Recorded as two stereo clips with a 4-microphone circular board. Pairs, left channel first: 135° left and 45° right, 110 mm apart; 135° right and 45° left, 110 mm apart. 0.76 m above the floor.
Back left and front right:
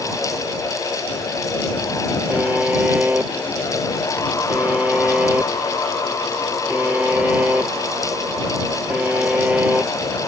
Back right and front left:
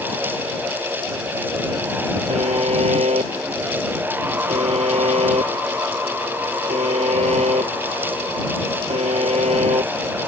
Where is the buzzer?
30° left.